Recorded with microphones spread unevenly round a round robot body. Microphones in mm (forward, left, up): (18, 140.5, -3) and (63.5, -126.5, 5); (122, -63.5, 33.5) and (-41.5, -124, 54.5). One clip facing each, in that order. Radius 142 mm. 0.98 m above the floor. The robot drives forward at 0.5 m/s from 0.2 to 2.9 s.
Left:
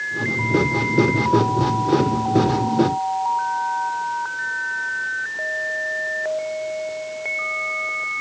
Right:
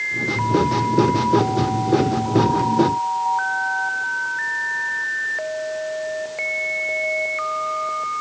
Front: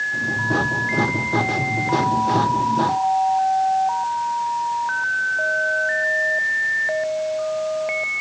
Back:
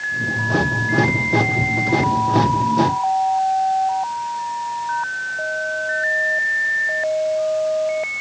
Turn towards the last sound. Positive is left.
No sound to turn to.